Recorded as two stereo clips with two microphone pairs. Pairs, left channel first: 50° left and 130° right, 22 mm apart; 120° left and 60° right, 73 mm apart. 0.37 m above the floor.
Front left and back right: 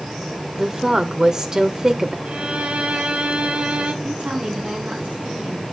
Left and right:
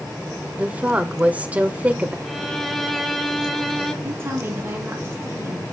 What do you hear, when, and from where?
0.6 s a woman speaking: 110° right, 0.9 m
2.2 s a violin: 155° right, 1.0 m
4.0 s a woman speaking: 115° right, 4.5 m